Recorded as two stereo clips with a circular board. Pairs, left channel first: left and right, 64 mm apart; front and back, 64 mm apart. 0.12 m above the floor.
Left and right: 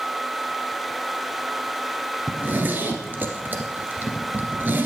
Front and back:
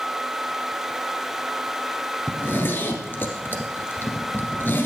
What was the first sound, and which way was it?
A zipper, 40° right.